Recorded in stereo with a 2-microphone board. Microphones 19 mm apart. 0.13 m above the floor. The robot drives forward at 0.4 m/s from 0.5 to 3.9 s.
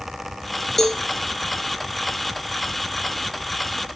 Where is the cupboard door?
No cupboard door in this recording.